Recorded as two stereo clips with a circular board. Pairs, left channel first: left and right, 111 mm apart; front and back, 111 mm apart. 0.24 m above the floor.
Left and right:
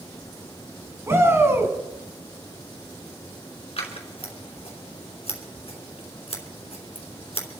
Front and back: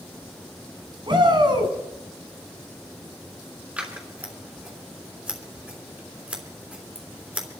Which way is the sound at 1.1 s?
150° right.